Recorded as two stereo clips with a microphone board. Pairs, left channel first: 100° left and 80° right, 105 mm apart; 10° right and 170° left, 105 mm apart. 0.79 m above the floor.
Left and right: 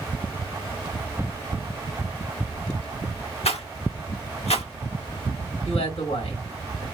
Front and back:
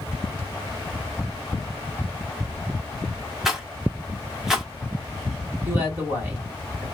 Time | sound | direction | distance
3.5 | a rattle | 85° left | 0.9 m
5.7 | a man speaking | 100° left | 2 m